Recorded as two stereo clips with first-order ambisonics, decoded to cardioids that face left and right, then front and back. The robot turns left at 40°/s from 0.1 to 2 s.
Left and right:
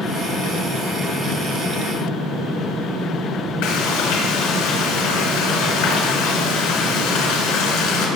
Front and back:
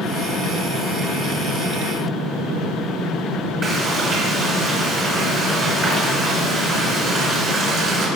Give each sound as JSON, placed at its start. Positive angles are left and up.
{"t": 3.6, "sound": "frying", "azimuth_deg": 110, "distance_m": 3.5}